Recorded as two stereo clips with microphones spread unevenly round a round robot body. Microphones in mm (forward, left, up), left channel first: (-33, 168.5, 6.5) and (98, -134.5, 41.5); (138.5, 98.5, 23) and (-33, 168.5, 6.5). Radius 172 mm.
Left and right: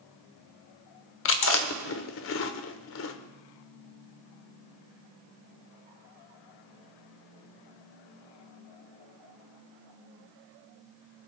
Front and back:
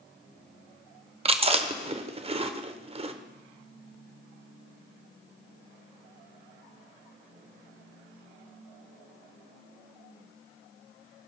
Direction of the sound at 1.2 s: 125° left.